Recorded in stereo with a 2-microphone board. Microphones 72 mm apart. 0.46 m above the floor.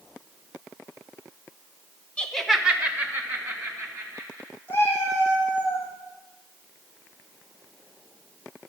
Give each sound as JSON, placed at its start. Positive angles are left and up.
{"t": 2.2, "sound": "laughter", "side_deg": 15, "distance_m": 1.0}
{"t": 4.7, "sound": "a cat meowing", "side_deg": 30, "distance_m": 4.0}